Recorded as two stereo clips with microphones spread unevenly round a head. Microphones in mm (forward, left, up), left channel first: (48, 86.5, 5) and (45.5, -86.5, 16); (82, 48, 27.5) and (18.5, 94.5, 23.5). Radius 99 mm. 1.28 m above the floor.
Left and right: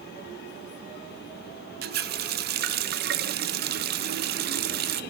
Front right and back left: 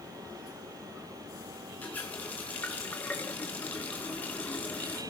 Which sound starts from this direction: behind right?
A running tap, at 1.8 s.